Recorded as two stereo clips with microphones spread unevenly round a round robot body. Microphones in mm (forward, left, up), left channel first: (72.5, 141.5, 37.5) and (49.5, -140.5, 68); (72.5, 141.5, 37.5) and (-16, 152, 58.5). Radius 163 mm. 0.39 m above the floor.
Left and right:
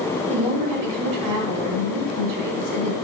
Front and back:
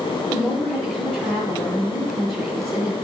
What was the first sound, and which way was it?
A woman speaking, 90° right.